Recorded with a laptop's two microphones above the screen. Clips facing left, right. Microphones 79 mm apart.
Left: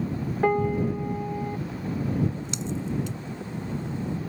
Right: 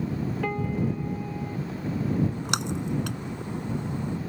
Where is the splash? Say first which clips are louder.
Right 2 dB; 80° right.